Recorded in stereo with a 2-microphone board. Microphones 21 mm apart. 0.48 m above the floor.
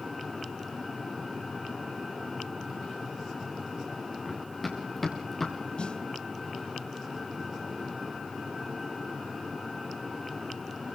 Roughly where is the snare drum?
Left.